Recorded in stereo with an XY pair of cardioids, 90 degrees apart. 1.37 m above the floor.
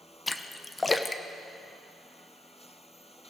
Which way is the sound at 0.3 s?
25° left.